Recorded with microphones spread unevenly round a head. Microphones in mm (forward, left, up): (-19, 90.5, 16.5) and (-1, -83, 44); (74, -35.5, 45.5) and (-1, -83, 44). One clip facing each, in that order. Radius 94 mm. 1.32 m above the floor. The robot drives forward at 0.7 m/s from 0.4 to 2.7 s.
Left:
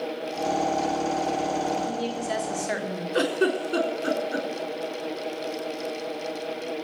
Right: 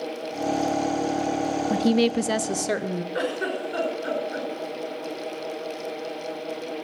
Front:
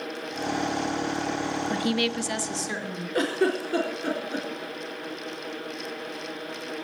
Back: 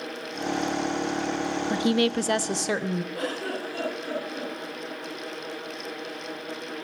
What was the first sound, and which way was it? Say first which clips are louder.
A woman speaking: right 8 dB, back 5 dB; 75° right.